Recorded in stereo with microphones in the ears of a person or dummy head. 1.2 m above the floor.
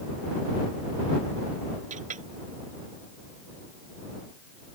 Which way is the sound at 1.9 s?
40° right (ahead or behind).